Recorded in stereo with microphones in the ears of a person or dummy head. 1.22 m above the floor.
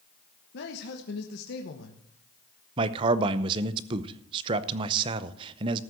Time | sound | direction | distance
0.5 | a man speaking | 65° left (ahead or behind) | 1.2 m
2.8 | a man speaking | 30° right (ahead or behind) | 0.7 m